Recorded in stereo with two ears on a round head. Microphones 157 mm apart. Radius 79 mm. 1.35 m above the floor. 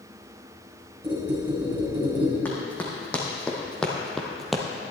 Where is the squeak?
10° right (ahead or behind), 3.5 m.